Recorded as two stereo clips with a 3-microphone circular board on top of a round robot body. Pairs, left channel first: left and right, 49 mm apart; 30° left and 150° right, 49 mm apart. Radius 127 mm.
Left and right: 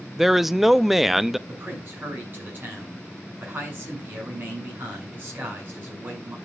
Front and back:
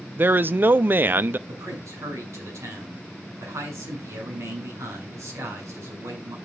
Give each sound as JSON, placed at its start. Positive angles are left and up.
{"t": 0.2, "sound": "a man speaking", "azimuth_deg": -175, "distance_m": 0.7}
{"t": 1.5, "sound": "a man speaking", "azimuth_deg": -135, "distance_m": 6.5}